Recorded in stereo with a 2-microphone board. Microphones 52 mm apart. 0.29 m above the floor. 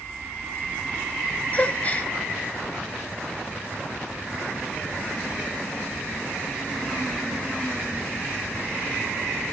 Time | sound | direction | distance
1.5 | a gasp | 30° left (ahead or behind) | 0.8 m